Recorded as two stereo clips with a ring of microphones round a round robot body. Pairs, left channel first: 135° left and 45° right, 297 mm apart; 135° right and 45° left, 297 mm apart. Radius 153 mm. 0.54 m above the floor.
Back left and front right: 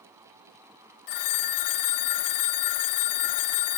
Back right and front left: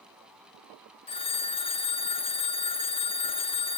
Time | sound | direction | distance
1.1 | a phone ringing | 155° left | 0.6 m